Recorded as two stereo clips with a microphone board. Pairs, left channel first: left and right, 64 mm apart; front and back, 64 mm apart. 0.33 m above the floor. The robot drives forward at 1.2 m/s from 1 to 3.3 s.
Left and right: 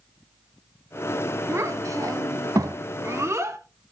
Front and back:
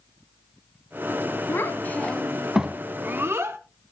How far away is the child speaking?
About 1.7 m.